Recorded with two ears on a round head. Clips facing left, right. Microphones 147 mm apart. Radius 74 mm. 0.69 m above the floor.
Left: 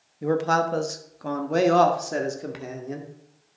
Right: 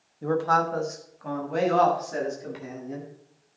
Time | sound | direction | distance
0.2 | a man speaking | 15° left (ahead or behind) | 1.0 m